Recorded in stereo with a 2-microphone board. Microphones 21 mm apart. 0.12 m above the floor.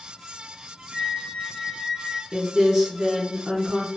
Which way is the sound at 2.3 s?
30° right (ahead or behind).